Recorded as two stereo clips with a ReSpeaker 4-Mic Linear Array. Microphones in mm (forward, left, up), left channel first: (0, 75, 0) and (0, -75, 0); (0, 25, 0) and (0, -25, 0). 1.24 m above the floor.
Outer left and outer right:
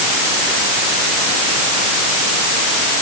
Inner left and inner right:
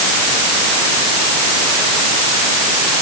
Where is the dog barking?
No dog barking in this recording.